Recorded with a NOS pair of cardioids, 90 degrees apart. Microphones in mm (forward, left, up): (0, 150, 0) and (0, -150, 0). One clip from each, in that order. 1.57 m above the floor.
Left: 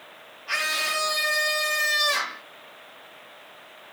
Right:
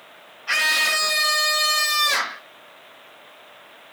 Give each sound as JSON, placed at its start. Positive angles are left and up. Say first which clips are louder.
{"t": 0.5, "sound": "a scream", "louder": "right 6 dB", "azimuth_deg": -50, "distance_m": 0.9}